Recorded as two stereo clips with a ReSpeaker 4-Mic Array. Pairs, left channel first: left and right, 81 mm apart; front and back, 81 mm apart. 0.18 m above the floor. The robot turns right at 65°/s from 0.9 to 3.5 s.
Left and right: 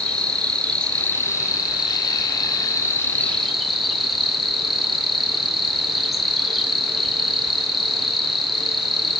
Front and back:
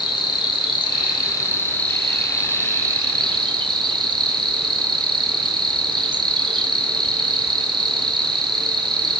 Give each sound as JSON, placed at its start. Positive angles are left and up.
{"t": 0.0, "sound": "an insect", "azimuth_deg": 10, "distance_m": 0.8}